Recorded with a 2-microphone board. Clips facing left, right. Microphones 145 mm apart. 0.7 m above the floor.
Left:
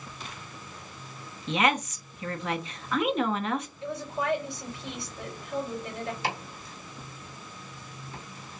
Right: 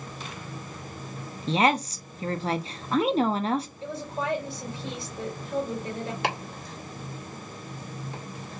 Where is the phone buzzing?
No phone buzzing in this recording.